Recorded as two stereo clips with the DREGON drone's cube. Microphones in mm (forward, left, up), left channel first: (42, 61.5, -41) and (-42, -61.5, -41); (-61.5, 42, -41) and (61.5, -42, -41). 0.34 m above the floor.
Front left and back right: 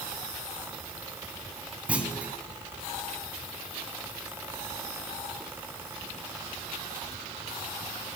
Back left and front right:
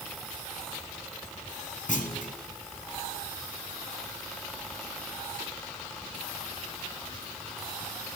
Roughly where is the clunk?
Behind left.